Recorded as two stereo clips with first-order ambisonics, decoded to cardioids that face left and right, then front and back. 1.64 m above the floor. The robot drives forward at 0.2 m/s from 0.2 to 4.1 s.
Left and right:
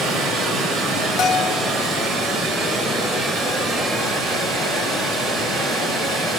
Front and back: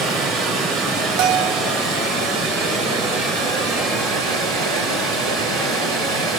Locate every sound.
0.0 s running water: 140° right, 3.5 m; by 6.4 s 150° right, 4 m
1.2 s a bell: 145° left, 0.6 m; by 1.6 s 150° left, 0.7 m